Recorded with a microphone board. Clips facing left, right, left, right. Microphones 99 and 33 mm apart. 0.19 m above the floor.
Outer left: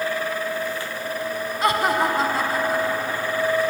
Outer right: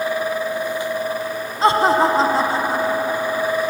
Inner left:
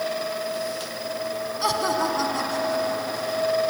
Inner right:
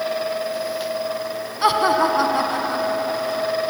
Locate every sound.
1.6 s laughter: 30° right (ahead or behind), 1.3 m